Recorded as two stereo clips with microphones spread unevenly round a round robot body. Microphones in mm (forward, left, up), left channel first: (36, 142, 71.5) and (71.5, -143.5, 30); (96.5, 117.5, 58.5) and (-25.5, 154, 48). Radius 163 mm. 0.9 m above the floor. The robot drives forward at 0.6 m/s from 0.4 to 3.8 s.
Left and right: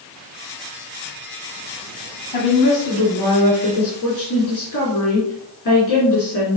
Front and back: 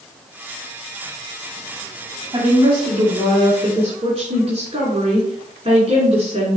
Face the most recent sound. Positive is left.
turn(degrees=130)